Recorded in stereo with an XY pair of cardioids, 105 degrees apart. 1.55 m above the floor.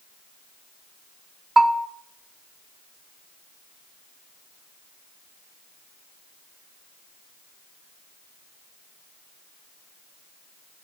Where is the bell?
25° right, 0.6 m.